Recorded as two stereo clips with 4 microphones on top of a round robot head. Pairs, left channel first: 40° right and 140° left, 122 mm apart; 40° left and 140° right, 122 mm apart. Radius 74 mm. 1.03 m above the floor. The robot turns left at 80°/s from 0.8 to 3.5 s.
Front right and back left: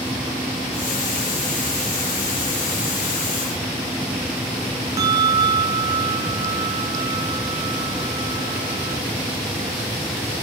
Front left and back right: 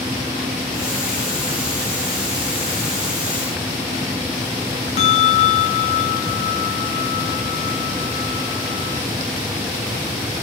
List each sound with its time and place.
5.0 s a bell: 75° left, 0.7 m